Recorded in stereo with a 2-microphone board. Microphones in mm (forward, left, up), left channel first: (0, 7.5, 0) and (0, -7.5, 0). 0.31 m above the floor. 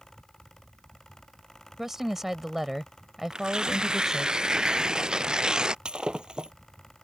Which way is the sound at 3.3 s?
60° right (ahead or behind).